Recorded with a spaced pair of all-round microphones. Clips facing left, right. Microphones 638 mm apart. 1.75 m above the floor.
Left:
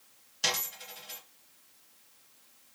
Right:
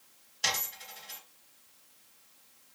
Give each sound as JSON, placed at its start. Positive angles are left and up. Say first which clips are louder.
{"t": 0.4, "sound": "a dropped coin", "louder": "left 3 dB", "side_deg": 40, "distance_m": 1.9}